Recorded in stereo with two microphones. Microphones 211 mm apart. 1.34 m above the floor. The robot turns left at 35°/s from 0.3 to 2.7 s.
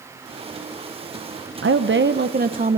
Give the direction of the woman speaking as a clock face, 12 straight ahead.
4 o'clock.